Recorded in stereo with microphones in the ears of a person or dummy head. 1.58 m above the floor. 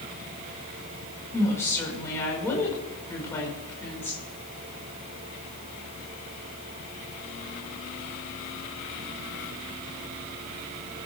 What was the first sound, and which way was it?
A woman speaking, 15° left (ahead or behind).